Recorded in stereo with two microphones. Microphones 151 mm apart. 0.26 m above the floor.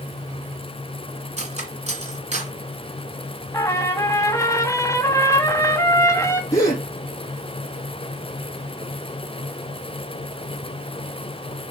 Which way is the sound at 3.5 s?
20° left (ahead or behind).